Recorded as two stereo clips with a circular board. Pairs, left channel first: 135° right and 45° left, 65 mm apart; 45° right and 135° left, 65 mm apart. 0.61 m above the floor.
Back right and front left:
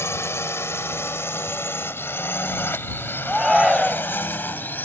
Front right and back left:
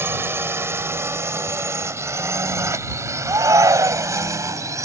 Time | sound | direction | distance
0.0 | a drone | straight behind | ?
3.2 | a shout | 130° left | ?